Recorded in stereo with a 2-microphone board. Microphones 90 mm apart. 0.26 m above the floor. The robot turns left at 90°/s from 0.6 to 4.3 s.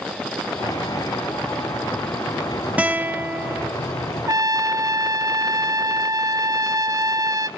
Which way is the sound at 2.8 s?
15° right (ahead or behind).